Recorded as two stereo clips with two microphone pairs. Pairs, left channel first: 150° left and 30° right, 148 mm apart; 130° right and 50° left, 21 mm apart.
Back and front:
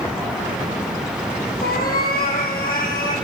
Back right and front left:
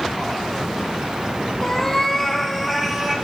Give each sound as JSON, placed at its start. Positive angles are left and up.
{"t": 1.6, "sound": "a cat meowing", "azimuth_deg": 160, "distance_m": 2.5}